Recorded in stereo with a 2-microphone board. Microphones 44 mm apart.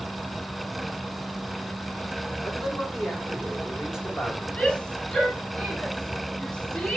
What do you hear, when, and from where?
2.4 s a man speaking: 15° right (ahead or behind), 3.5 m; by 4.5 s 10° right (ahead or behind), 4.5 m
4.6 s a shout: 10° left (ahead or behind), 8 m